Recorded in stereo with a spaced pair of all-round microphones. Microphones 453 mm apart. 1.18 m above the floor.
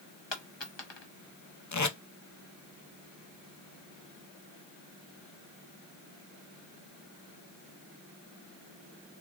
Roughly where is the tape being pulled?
Left.